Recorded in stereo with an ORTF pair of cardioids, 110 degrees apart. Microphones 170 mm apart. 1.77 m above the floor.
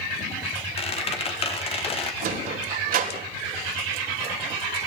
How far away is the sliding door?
About 3.5 m.